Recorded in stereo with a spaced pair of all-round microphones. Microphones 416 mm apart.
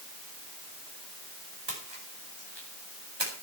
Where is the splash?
75° right (ahead or behind), 5.5 m.